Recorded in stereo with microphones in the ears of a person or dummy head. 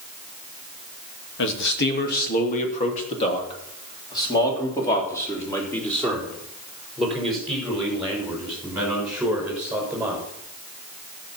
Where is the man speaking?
70° left (ahead or behind), 2.5 m; by 10.2 s 5° right (ahead or behind), 7.5 m.